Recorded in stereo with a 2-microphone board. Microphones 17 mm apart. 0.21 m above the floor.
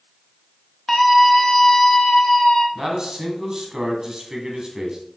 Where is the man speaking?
35° right (ahead or behind), 2 m.